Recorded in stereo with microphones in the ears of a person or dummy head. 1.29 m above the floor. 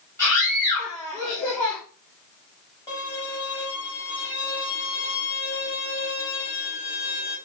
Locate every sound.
0.2 s a scream: 20° left (ahead or behind), 3.5 m
2.9 s a violin: 25° left (ahead or behind), 4 m